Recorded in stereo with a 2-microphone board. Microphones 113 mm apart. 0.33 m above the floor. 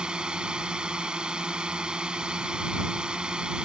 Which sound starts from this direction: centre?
A drone, at 0.0 s.